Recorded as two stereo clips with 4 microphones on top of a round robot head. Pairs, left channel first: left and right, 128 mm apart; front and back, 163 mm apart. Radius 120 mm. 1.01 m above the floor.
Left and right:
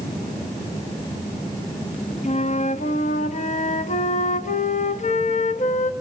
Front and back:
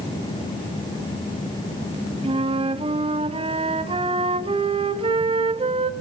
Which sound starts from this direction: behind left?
A flute, at 2.2 s.